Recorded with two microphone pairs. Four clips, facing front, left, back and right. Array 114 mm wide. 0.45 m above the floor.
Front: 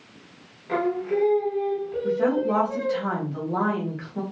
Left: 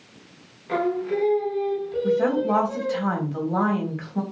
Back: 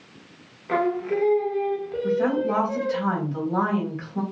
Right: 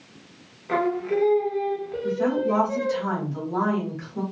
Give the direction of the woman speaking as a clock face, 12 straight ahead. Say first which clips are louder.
Left 2 dB, even; 9 o'clock.